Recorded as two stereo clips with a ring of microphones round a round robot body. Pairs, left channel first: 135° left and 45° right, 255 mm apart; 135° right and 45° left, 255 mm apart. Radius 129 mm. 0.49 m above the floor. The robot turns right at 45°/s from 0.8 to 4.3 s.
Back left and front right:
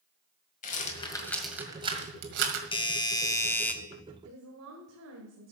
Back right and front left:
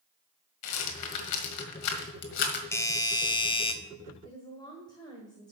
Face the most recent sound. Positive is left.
turn(degrees=-60)